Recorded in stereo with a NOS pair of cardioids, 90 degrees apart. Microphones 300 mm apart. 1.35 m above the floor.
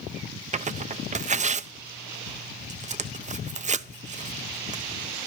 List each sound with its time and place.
0.5 s tearing paper: 25° right, 0.7 m